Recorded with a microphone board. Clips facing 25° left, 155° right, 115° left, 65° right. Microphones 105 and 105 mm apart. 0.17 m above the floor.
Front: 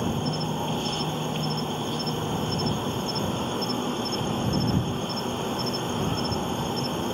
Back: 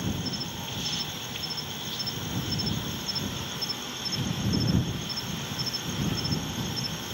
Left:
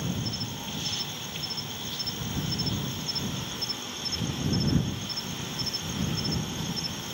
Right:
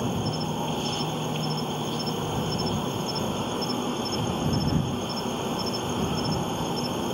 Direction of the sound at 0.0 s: 25° right.